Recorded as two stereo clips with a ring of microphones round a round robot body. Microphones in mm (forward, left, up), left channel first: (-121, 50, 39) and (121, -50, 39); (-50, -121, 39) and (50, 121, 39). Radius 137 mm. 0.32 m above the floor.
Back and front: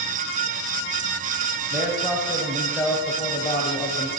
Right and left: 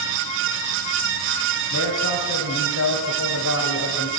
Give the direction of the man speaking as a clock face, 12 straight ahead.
3 o'clock.